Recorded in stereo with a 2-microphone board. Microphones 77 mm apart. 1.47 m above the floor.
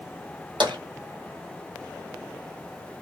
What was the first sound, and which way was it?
Tapping, 80° right.